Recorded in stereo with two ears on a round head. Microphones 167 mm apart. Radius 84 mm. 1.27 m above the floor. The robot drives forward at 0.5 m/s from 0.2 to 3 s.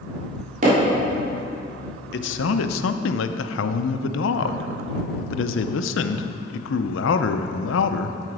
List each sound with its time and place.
0.6 s hammering: 50° right (ahead or behind), 3 m; by 0.8 s 45° right (ahead or behind), 3 m
2.1 s a man speaking: 60° left (ahead or behind), 0.6 m; by 8.2 s 75° left (ahead or behind), 0.6 m